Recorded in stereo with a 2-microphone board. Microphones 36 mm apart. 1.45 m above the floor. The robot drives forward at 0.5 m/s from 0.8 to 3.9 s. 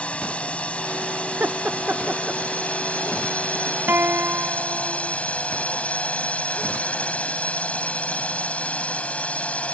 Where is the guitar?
85° right.